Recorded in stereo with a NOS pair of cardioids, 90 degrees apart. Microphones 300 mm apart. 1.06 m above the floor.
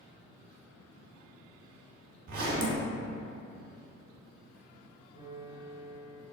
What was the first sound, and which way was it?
A zipper, 50° right.